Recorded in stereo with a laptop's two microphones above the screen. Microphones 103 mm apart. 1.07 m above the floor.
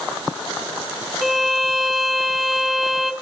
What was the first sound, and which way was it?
A violin, centre (ahead or behind).